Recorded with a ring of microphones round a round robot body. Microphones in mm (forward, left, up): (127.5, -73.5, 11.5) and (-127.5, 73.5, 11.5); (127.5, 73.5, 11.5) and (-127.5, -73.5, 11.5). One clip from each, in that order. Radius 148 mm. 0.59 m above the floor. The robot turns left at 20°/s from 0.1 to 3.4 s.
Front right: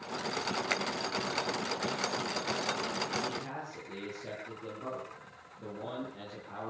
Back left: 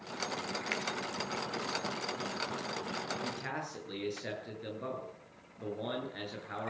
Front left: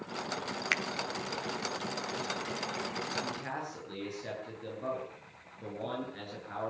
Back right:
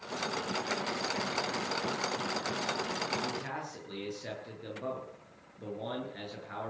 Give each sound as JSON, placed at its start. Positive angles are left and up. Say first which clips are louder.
{"t": 0.7, "sound": "a finger snap", "louder": "front right 3 dB, front left 7 dB", "azimuth_deg": 45, "distance_m": 1.1}
{"t": 3.2, "sound": "a man speaking", "louder": "front right 1 dB, back right 1 dB", "azimuth_deg": 130, "distance_m": 9.5}